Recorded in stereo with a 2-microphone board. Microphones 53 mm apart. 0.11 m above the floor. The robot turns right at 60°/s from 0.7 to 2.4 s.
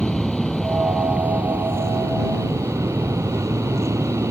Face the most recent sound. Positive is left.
turn(degrees=-80)